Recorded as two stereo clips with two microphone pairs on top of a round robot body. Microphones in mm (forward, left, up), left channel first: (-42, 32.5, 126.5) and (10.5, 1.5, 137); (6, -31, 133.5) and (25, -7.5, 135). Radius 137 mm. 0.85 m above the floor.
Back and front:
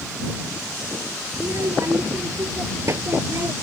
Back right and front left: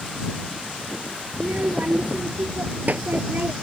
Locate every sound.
1.3 s a child speaking: 15° left